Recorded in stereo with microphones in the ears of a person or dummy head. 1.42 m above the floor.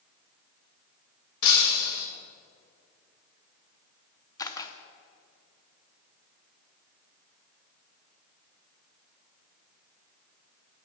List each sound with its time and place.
1.4 s breaking glass: 55° left (ahead or behind), 1.6 m
4.4 s a camera shutter: 20° left (ahead or behind), 0.7 m